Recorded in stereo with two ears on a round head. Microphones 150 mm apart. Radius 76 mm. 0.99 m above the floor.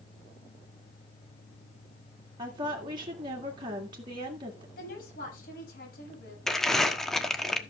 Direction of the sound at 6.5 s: 5° left (ahead or behind).